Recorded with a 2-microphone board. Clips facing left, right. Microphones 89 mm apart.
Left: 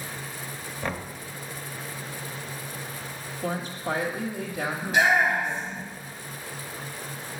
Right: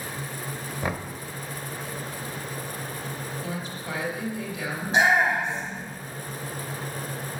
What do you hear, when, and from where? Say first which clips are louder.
0.8 s knocking: right 1 dB; 10° right (ahead or behind), 0.6 m
3.4 s a woman speaking: left 4 dB; 40° left (ahead or behind), 1.1 m
4.8 s a shout: right 1 dB; 30° right (ahead or behind), 1.6 m